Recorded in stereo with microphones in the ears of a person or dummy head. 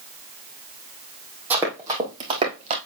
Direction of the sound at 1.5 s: 15° right (ahead or behind).